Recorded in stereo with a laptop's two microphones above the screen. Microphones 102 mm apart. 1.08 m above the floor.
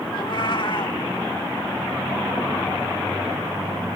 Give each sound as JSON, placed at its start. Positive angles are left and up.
{"t": 0.1, "sound": "a cat meowing", "side_deg": 50}